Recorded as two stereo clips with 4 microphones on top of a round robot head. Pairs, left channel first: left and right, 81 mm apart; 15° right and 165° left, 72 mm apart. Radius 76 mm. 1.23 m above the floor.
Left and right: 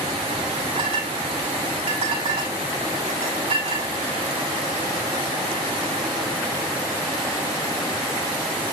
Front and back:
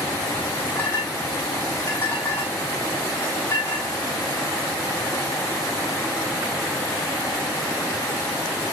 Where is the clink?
80° right, 5 m.